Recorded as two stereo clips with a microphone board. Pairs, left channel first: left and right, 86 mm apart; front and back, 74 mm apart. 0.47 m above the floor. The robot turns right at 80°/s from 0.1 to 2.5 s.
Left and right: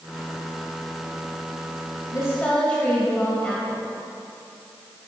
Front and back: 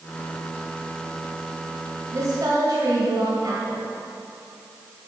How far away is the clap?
I don't hear a clap.